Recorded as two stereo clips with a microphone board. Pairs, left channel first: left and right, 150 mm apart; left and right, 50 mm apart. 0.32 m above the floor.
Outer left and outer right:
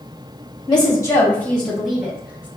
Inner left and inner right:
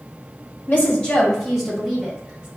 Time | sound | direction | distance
0.7 | a woman speaking | 35° left (ahead or behind) | 1.6 m